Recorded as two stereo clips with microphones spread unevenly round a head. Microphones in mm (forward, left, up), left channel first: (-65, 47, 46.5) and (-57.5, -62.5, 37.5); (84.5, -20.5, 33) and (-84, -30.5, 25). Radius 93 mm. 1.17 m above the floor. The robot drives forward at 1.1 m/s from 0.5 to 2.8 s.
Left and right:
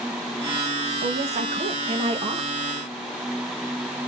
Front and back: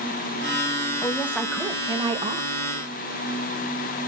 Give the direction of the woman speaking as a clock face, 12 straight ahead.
2 o'clock.